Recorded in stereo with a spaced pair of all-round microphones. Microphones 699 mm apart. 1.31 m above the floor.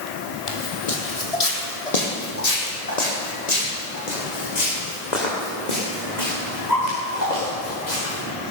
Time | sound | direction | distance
0.5 | footsteps | 45° left (ahead or behind) | 2.5 m